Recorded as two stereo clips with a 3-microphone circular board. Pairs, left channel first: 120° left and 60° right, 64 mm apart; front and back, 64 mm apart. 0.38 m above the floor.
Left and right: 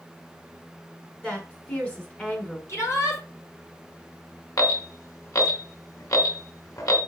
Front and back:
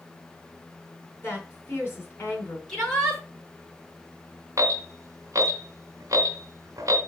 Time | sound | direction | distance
1.2 | a woman speaking | 55° left | 4 m
2.7 | a shout | 80° left | 5.5 m
4.6 | an alarm | 145° left | 2.5 m